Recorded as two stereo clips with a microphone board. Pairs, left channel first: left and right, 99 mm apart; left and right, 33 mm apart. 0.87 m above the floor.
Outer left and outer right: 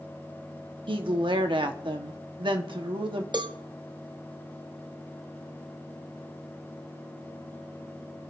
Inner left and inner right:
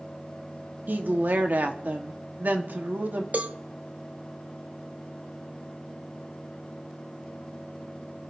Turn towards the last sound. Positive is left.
turn(degrees=-50)  # may be behind; listen again after turning